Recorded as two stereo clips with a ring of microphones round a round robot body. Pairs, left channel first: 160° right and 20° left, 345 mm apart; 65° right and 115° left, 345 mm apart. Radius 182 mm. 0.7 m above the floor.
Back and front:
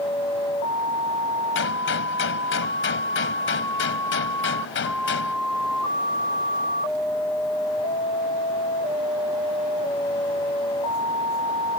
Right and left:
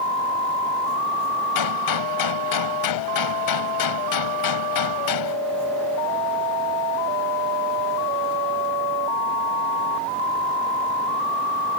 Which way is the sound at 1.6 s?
100° right.